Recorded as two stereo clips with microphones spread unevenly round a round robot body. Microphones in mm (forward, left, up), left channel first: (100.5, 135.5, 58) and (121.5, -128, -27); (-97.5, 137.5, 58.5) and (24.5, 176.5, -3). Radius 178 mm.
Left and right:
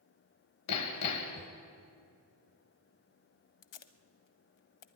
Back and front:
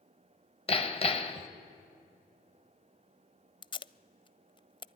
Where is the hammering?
140° left, 1.5 m.